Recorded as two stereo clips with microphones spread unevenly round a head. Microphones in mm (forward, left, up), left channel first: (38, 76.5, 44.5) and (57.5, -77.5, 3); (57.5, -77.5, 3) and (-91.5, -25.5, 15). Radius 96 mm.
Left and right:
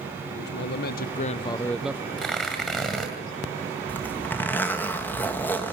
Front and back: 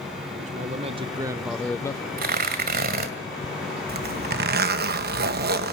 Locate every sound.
0.3 s a man speaking: 115° left, 1.2 m; by 2.1 s 50° right, 0.7 m
2.2 s tearing paper: straight behind, 2 m
3.9 s a zipper: straight behind, 1.2 m